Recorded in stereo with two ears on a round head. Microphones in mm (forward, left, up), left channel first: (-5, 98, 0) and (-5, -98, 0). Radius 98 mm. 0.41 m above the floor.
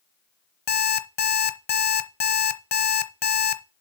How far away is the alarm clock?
About 0.9 m.